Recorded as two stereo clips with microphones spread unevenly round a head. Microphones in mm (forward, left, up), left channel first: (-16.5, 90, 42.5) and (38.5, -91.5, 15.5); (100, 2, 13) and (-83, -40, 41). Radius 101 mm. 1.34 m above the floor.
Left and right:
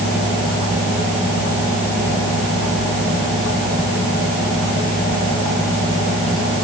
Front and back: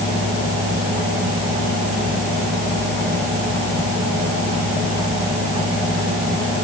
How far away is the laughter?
No laughter in this recording.